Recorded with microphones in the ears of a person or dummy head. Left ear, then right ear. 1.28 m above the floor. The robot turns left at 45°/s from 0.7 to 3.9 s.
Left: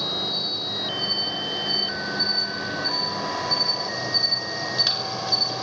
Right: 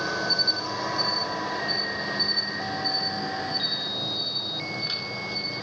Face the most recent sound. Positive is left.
turn(degrees=105)